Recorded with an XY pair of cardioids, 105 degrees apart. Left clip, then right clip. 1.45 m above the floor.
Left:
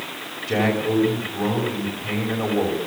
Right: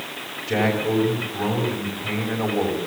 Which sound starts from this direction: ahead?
A man speaking, at 0.5 s.